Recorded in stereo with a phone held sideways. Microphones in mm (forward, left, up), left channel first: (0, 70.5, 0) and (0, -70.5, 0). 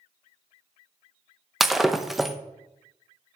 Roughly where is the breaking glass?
Centre.